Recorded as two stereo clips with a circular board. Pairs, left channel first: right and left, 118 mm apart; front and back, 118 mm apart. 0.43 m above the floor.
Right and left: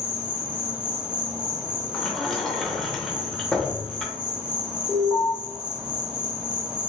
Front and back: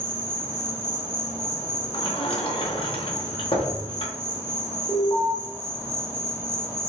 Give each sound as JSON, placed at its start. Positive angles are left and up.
{"t": 0.0, "sound": "an insect", "azimuth_deg": 155, "distance_m": 0.7}
{"t": 1.9, "sound": "a sliding door", "azimuth_deg": -5, "distance_m": 0.7}
{"t": 4.9, "sound": "an alarm", "azimuth_deg": -30, "distance_m": 1.1}